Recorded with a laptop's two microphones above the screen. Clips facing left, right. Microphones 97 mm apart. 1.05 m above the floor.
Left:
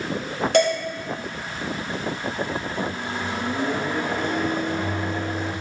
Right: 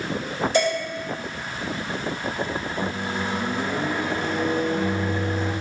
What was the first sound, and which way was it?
Dishes clattering, 65° left (ahead or behind).